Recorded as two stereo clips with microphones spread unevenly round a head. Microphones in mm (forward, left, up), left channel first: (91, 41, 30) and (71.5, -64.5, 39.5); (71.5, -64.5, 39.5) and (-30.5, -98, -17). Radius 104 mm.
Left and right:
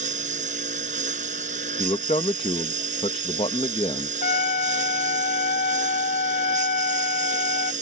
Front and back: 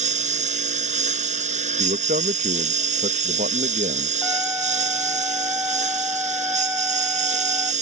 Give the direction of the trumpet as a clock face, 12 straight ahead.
8 o'clock.